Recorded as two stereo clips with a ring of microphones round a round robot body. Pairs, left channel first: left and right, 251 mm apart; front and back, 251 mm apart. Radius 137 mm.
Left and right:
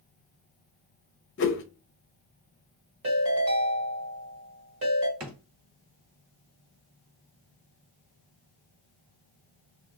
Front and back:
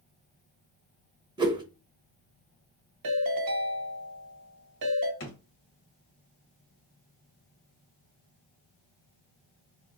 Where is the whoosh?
110° left, 0.6 m.